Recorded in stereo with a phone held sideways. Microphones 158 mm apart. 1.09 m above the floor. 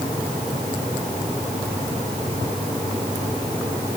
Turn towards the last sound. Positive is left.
No sound to turn to.